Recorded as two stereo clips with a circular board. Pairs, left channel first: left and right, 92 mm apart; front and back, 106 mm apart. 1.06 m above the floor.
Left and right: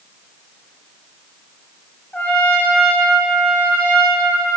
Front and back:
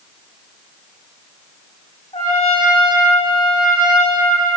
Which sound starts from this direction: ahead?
A trumpet, at 2.1 s.